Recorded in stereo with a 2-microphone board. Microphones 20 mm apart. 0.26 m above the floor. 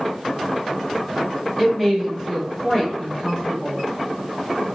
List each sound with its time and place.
1.6 s a woman speaking: 10° left (ahead or behind), 1.5 m; by 3.8 s 25° left (ahead or behind), 1.3 m